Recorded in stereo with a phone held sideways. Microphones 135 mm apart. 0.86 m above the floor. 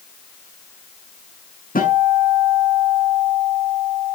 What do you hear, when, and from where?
1.8 s a guitar: 85° left, 7 m